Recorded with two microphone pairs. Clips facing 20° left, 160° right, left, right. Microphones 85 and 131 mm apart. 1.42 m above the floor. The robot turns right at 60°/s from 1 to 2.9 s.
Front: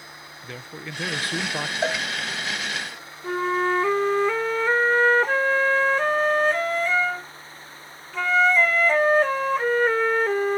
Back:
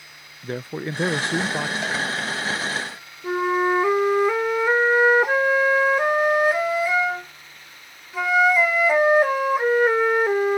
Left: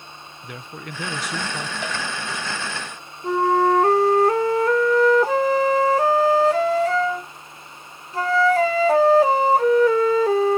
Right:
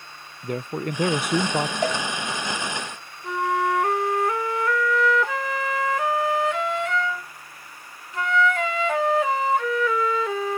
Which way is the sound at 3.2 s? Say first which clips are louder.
Back 2 dB, left 6 dB; 125° left.